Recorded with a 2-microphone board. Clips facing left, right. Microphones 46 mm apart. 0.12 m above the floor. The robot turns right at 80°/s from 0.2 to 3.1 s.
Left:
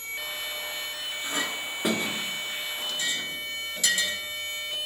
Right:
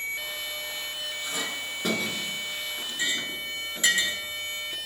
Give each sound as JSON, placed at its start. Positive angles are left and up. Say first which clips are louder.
{"t": 1.2, "sound": "a clink", "louder": "left 4 dB", "side_deg": 35, "distance_m": 1.0}